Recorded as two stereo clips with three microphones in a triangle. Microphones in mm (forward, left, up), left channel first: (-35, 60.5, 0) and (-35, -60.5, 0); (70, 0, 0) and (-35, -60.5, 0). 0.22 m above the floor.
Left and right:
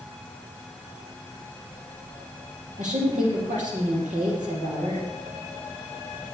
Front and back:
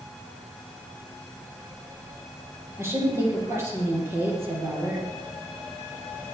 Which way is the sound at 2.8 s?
80° right.